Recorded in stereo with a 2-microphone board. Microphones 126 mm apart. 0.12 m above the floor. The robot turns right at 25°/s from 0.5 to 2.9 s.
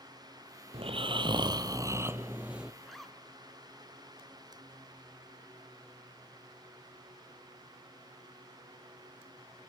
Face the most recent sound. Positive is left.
turn(degrees=0)  # may be behind; listen again after turning